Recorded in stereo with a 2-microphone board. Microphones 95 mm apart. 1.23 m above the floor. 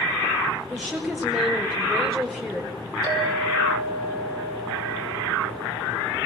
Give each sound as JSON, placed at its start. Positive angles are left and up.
{"t": 0.7, "sound": "a woman speaking", "side_deg": 5, "distance_m": 5.0}
{"t": 3.0, "sound": "a clink", "side_deg": 55, "distance_m": 6.5}